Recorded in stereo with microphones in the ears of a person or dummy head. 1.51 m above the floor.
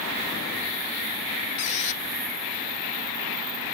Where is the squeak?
40° left (ahead or behind).